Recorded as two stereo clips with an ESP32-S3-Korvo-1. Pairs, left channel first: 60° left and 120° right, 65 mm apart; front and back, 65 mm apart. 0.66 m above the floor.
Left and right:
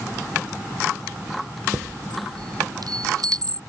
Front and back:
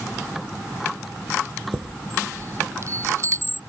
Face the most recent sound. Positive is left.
turn(degrees=-135)